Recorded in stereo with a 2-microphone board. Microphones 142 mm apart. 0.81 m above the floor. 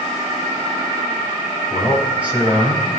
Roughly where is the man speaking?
Centre.